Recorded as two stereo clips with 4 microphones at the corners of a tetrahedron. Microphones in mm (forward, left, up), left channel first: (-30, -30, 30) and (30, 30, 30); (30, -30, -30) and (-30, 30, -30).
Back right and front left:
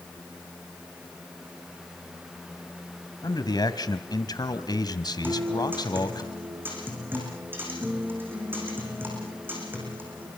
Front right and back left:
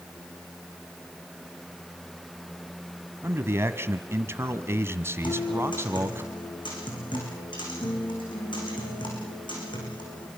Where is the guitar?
25° right, 8.5 m.